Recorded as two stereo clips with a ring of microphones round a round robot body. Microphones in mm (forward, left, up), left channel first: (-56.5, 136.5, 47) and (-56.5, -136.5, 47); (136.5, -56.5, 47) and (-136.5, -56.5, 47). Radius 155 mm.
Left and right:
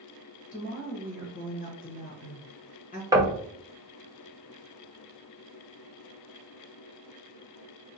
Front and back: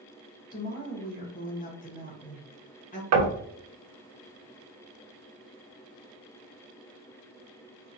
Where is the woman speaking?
45° left, 1.0 m.